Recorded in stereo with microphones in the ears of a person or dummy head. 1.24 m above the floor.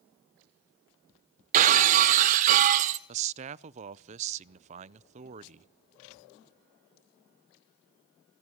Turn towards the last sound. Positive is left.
turn(degrees=-35)  # may be behind; listen again after turning